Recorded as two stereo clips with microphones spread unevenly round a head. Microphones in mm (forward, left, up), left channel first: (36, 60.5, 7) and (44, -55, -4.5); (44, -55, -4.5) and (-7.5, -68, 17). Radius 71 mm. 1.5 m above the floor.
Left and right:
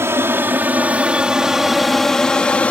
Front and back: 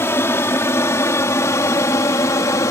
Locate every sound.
0.0 s an aircraft: 20° right; by 2.7 s 15° left